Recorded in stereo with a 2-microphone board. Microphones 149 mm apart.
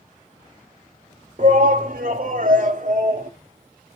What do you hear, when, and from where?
1.4 s a shout: 60° right (ahead or behind), 1.4 m; by 3.3 s 65° right (ahead or behind), 2.5 m